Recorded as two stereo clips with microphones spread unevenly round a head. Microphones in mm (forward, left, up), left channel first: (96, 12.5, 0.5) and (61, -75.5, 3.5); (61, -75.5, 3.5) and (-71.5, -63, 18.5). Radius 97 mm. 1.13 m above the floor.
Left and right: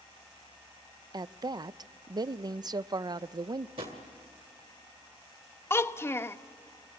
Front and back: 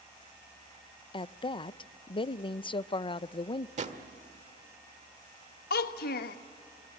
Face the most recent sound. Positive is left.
turn(degrees=0)